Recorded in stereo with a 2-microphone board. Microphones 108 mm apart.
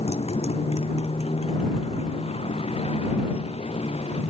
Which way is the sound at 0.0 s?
70° left (ahead or behind).